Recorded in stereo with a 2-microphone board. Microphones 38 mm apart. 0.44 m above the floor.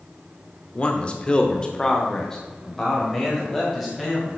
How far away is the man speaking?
About 0.8 m.